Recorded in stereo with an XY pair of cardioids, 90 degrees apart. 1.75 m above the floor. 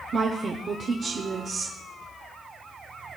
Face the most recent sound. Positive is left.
turn(degrees=-55)